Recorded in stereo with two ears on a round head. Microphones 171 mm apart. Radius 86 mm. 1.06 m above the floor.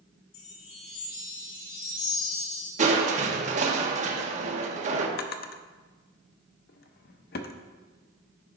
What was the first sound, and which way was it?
A chime, 75° left (ahead or behind).